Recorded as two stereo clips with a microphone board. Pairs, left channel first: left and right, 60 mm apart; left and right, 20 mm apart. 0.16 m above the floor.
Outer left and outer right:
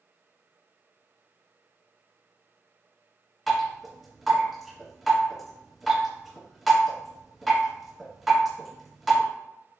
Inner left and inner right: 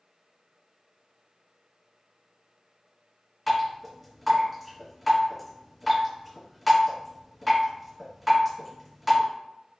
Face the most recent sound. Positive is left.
turn(degrees=0)  # may be behind; listen again after turning